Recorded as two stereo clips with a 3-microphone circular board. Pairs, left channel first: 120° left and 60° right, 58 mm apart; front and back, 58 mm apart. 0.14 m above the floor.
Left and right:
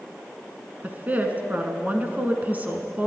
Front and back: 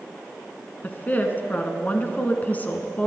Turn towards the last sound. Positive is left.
turn(degrees=-30)